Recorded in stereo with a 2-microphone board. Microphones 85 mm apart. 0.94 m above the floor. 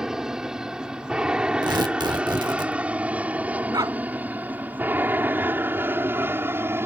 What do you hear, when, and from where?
0.0 s an aircraft: 5° right (ahead or behind); by 6.9 s 30° right (ahead or behind)
1.6 s tearing paper: 55° right (ahead or behind)
3.7 s a dog barking: 50° right (ahead or behind)